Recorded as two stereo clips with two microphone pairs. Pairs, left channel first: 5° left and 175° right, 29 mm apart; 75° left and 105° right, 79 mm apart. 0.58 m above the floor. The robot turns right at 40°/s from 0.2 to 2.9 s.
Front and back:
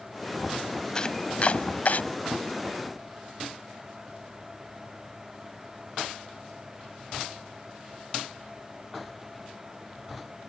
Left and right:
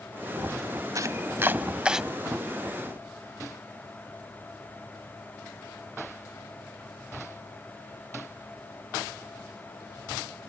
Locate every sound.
0.9 s chopping: 60° right; by 2.0 s 20° right